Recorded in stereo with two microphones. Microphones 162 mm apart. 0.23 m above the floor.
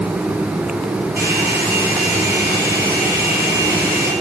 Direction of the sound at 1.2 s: 70° right (ahead or behind).